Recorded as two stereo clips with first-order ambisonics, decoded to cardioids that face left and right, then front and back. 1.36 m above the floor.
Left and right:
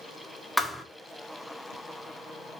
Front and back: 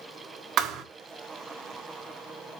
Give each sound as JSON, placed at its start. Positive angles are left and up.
{"t": 0.6, "sound": "a thud", "azimuth_deg": 175, "distance_m": 1.0}